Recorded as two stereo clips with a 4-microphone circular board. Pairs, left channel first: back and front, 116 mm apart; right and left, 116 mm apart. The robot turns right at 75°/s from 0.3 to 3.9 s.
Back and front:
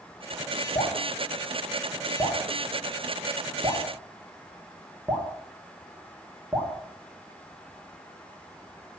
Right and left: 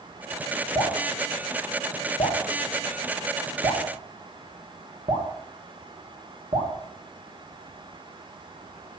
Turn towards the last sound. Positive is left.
turn(degrees=90)